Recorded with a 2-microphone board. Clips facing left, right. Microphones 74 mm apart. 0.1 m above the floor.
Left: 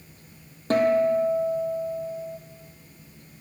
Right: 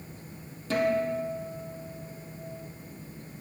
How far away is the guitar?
About 1.2 m.